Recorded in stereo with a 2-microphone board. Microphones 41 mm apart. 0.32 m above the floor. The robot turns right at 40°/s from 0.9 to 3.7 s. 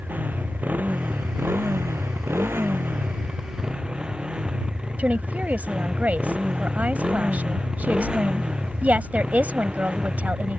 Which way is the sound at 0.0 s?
135° right.